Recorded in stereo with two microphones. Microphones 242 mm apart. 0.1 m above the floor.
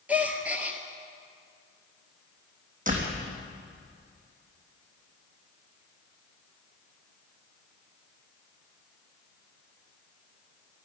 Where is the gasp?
5° right (ahead or behind), 1.4 m.